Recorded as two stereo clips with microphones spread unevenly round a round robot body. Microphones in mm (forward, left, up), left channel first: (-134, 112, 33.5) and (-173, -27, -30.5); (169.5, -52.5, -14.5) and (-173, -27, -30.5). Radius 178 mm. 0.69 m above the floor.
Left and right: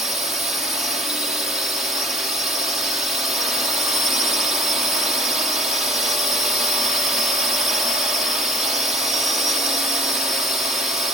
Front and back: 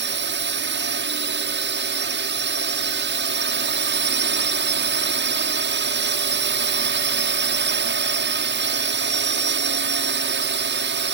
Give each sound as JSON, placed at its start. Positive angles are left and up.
{"t": 0.0, "sound": "a drone", "azimuth_deg": -155}